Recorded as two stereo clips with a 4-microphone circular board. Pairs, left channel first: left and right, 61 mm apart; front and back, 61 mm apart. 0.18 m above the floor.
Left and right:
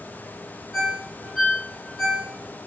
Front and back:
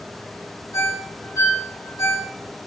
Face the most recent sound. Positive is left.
turn(degrees=0)